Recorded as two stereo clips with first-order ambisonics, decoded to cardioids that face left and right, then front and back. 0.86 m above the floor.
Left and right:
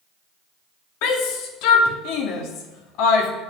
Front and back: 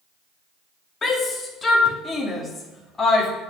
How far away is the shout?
About 2 m.